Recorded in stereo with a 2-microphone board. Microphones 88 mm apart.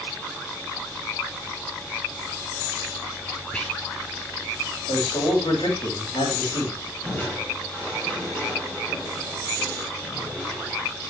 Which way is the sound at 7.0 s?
10° left (ahead or behind).